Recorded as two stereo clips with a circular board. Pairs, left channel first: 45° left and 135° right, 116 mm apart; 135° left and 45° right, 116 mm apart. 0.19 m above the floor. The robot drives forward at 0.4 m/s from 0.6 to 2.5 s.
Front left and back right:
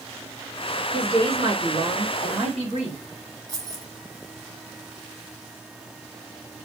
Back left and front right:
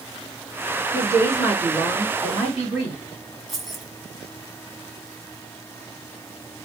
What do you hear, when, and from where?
0.9 s a woman speaking: 105° right, 3 m; by 3.0 s 120° right, 3 m
3.5 s keys jangling: 130° right, 1.1 m